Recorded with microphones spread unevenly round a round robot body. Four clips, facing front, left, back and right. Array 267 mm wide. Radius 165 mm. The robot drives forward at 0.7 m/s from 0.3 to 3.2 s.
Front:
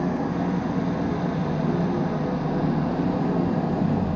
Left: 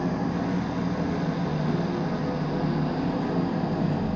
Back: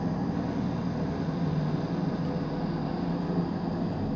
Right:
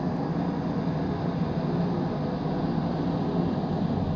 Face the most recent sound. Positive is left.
turn(degrees=5)